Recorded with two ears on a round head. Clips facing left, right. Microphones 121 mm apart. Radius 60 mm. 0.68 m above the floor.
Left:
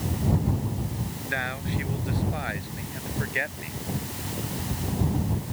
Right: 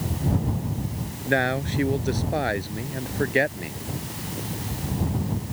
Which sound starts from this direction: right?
A man speaking, at 1.2 s.